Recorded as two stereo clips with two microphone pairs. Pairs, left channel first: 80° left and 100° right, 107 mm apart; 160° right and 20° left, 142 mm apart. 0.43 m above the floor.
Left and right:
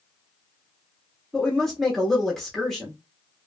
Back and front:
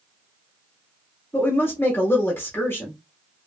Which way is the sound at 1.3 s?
165° left.